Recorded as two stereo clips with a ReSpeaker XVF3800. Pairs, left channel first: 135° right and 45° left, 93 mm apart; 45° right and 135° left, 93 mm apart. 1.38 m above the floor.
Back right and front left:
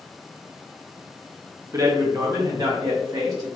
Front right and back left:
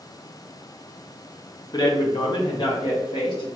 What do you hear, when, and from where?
1.7 s a man speaking: 5° right, 0.8 m; by 3.5 s 10° right, 2 m